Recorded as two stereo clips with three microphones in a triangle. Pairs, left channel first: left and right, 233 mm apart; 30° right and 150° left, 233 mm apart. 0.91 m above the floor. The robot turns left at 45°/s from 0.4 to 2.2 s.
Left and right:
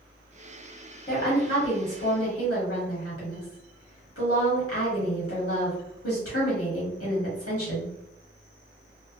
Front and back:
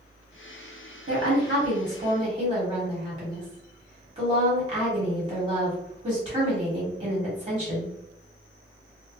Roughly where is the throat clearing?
No throat clearing in this recording.